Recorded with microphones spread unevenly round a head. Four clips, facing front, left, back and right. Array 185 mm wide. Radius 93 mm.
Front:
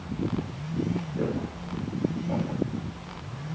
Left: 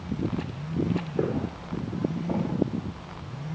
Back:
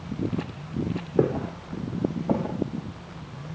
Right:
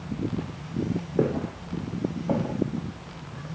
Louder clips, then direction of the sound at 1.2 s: Right 5 dB, back 11 dB; 160° right.